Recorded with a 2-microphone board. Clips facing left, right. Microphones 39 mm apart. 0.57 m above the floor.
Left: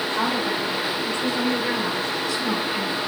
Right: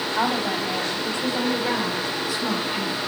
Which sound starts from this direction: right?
A woman speaking, at 0.1 s.